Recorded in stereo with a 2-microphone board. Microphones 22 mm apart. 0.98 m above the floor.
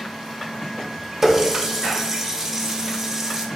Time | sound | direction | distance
1.2 | a running tap | 25° right (ahead or behind) | 0.7 m